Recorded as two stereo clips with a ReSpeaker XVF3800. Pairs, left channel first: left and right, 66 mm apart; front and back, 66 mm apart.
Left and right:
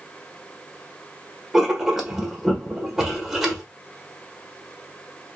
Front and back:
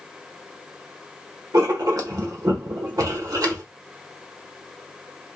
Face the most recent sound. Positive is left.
turn(degrees=-170)